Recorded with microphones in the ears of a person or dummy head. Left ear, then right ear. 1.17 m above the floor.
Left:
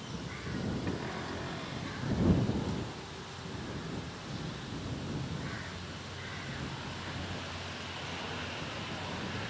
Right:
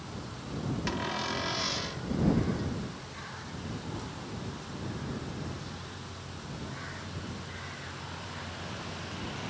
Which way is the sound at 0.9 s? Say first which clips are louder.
Right 6 dB; 75° right (ahead or behind).